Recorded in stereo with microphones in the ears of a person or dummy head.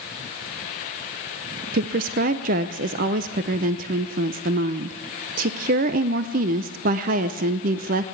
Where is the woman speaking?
50° right (ahead or behind), 0.6 m.